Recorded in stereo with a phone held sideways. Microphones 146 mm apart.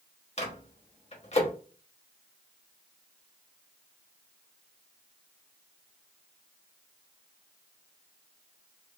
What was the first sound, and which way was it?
A microwave, 45° left (ahead or behind).